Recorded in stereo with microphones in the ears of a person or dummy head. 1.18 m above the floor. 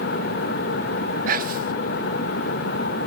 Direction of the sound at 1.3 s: 45° right (ahead or behind).